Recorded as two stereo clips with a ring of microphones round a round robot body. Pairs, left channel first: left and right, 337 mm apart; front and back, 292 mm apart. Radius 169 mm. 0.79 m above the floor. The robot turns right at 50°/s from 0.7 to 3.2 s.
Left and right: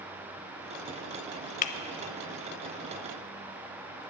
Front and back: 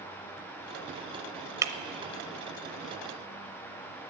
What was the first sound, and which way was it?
Breaking glass, 115° left.